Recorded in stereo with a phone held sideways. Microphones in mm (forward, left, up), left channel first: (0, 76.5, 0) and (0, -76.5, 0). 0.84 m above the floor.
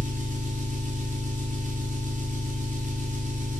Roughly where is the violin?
I don't hear a violin.